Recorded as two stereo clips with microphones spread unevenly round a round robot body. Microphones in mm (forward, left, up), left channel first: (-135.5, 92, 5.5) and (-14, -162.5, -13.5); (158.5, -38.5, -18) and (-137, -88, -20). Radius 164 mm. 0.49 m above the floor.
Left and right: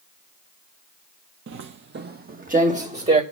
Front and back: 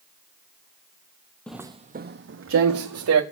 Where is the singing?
No singing in this recording.